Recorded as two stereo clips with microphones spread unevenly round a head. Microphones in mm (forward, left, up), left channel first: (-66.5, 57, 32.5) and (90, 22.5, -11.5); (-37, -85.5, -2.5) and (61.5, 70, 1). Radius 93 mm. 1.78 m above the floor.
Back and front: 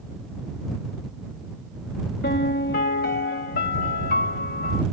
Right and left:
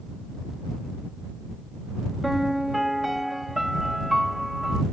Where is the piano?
145° left.